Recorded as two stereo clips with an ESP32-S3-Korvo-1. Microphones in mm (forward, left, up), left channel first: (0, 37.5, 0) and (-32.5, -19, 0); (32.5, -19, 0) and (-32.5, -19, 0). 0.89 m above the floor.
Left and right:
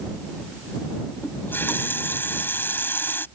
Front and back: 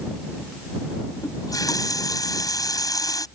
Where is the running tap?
5° left.